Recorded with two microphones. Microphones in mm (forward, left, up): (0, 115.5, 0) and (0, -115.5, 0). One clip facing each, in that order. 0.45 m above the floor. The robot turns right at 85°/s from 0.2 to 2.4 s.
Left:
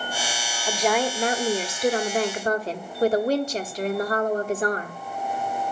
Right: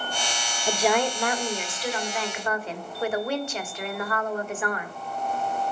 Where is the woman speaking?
20° right, 1.7 m; by 5.0 s 125° left, 1.7 m.